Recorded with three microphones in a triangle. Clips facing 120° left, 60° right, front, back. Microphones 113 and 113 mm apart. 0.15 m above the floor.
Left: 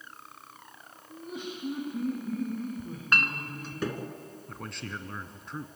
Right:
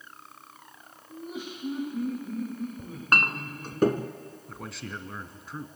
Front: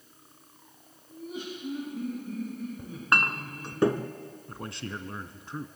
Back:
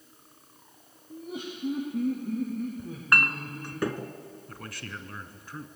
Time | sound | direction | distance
1.1 | laughter | 150° right | 7 m
2.8 | a clink | 55° right | 1.0 m
4.5 | a man speaking | 25° left | 1.2 m